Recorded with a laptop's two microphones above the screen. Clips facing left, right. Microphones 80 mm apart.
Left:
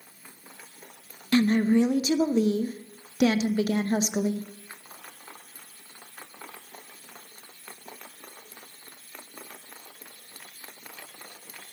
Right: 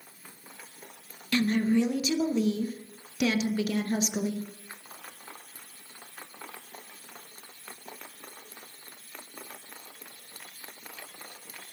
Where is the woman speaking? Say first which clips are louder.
Left 4 dB; 35° left (ahead or behind), 0.6 m.